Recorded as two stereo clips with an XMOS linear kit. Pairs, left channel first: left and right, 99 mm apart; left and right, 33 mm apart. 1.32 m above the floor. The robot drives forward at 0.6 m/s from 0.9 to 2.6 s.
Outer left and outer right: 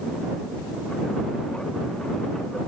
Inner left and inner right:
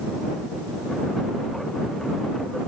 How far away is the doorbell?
I don't hear a doorbell.